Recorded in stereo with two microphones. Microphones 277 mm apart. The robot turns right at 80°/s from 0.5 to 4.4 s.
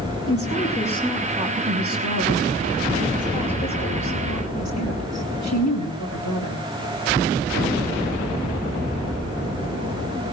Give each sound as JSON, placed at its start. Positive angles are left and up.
{"t": 0.3, "sound": "a woman speaking", "azimuth_deg": 125, "distance_m": 5.5}